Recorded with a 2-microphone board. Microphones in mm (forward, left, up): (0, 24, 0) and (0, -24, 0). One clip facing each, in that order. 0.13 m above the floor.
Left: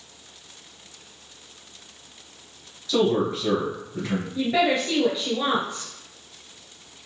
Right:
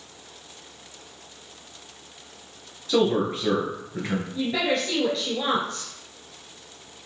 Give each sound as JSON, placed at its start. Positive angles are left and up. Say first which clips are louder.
{"t": 2.9, "sound": "a man speaking", "louder": "even", "side_deg": -35, "distance_m": 1.9}
{"t": 4.3, "sound": "a woman speaking", "louder": "left 4 dB", "side_deg": 15, "distance_m": 1.9}